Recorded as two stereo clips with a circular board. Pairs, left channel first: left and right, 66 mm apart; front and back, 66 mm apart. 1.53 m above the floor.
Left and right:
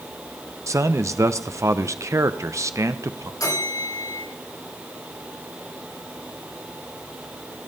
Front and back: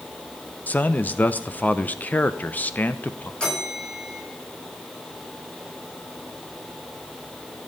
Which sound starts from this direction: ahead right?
A man speaking, at 0.7 s.